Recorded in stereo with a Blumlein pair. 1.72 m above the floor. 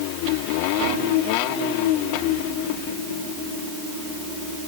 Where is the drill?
No drill in this recording.